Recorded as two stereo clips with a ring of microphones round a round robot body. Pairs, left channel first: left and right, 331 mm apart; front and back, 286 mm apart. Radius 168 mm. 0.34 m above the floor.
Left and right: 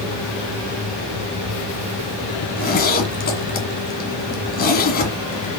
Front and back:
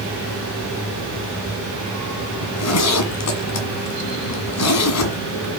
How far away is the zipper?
About 1.9 m.